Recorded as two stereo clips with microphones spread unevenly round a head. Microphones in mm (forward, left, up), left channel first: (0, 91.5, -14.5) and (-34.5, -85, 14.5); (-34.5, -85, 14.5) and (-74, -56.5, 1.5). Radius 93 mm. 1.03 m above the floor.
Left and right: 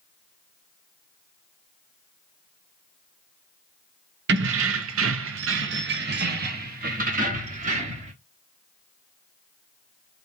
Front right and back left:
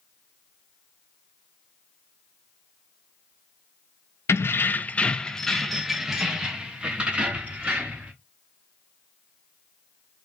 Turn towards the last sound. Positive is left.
turn(degrees=-155)